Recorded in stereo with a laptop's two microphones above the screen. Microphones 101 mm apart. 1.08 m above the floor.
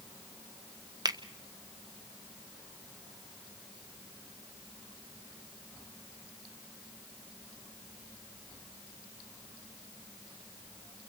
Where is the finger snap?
40° right (ahead or behind), 1.0 m.